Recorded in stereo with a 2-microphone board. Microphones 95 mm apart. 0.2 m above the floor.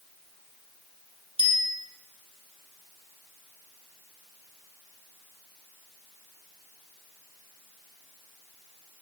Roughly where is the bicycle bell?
Right.